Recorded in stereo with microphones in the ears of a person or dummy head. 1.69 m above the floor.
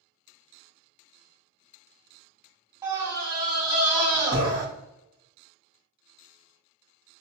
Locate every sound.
2.8 s a scream: 20° right (ahead or behind), 1.2 m